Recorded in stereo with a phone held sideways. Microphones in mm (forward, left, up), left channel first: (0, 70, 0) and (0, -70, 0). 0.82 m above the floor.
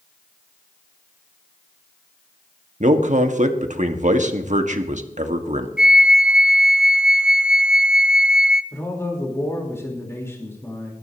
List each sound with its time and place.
2.8 s a man speaking: 60° right (ahead or behind), 1.4 m
5.8 s a flute: 5° right (ahead or behind), 0.7 m
8.7 s a man speaking: 20° left (ahead or behind), 3.5 m